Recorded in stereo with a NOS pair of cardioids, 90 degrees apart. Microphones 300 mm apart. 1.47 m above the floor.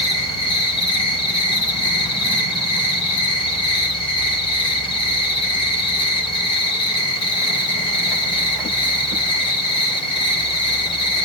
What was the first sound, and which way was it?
An insect, 15° left.